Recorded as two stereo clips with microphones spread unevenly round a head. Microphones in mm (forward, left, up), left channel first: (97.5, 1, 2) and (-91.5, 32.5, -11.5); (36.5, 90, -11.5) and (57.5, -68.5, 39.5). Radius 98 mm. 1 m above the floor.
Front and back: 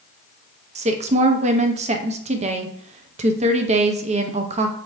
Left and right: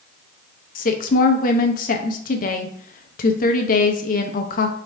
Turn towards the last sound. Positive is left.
turn(degrees=115)